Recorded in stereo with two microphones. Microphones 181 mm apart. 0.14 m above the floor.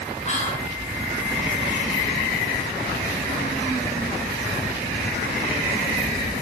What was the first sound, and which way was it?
Whispering, 40° left (ahead or behind).